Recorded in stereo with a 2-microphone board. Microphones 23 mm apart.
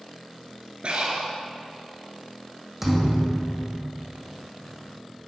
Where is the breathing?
60° right (ahead or behind), 1.9 m.